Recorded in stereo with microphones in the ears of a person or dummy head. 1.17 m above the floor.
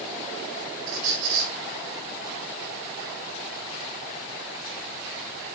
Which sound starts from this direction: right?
A squeak, at 0.9 s.